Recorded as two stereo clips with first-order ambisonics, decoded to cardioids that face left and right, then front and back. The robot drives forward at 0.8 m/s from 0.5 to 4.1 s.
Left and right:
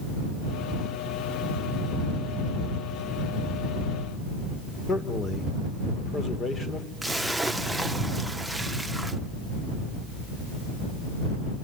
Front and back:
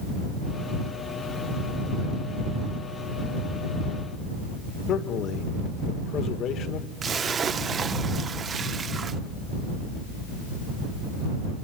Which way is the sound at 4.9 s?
30° left.